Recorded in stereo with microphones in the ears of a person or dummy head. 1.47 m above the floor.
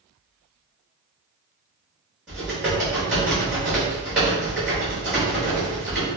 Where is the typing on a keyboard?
5° right (ahead or behind), 1.0 m.